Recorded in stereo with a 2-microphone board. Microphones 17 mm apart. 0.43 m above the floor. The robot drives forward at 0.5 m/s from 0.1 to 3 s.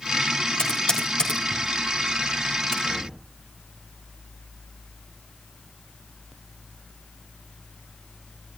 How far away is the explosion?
About 6.5 m.